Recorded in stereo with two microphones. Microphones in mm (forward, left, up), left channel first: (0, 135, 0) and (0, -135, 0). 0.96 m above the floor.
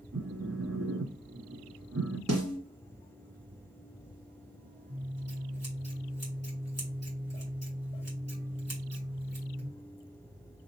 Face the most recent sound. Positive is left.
turn(degrees=-65)  # may be behind; listen again after turning